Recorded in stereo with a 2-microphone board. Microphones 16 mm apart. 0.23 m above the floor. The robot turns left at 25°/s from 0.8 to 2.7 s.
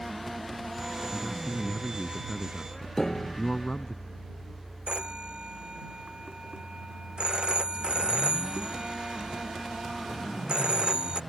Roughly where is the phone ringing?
Right.